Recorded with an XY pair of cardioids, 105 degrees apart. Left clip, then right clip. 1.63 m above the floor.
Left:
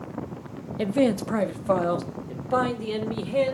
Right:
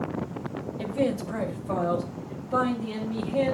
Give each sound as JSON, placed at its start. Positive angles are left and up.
{"t": 0.8, "sound": "a man speaking", "azimuth_deg": 55, "distance_m": 0.7}